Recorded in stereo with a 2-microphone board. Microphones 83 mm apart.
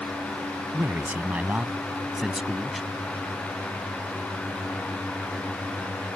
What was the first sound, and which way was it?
A man speaking, 25° right (ahead or behind).